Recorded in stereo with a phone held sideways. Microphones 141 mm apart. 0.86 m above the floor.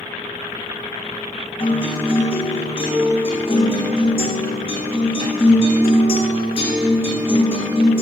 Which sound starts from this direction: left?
A guitar, at 1.6 s.